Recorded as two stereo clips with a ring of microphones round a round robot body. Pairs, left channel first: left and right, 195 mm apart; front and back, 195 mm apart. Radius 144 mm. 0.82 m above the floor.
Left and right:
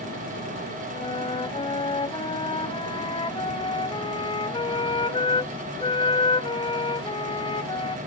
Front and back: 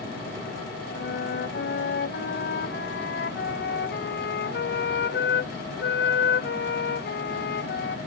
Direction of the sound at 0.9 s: 25° left.